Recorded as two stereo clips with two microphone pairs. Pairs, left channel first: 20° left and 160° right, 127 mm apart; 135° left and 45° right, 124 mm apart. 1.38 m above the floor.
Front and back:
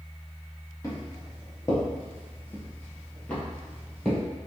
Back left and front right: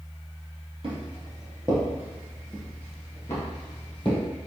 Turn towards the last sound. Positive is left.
turn(degrees=105)